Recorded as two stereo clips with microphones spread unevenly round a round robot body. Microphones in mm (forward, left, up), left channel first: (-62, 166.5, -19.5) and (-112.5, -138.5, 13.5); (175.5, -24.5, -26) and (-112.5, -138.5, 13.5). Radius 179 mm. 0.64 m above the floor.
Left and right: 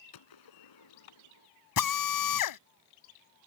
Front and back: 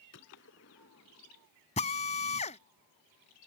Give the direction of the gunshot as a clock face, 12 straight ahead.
9 o'clock.